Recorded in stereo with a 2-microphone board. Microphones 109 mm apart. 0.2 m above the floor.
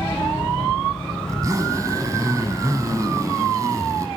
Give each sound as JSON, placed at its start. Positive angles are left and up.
{"t": 1.3, "sound": "a zipper", "side_deg": -30, "distance_m": 0.9}